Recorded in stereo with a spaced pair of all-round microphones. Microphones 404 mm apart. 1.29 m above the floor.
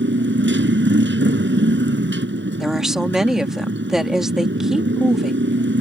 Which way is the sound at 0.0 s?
30° right (ahead or behind).